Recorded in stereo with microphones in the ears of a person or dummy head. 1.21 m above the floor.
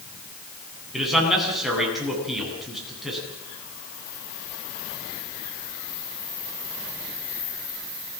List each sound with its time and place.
0.9 s a man speaking: 5° right (ahead or behind), 10 m